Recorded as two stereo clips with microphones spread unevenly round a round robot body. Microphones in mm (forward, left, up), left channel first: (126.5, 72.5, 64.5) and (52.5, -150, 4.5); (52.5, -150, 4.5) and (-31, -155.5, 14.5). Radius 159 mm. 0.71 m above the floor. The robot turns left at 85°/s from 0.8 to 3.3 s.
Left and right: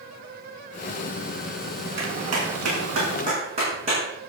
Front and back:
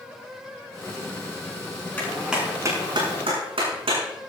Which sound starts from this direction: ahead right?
A clap, at 2.0 s.